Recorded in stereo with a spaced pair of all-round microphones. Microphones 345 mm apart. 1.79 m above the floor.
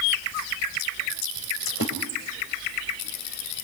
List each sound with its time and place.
1.7 s a splash: 40° left (ahead or behind), 2.5 m